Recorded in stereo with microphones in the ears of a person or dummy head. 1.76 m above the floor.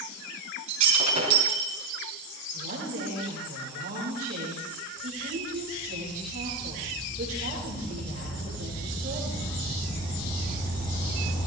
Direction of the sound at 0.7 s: 40° right (ahead or behind).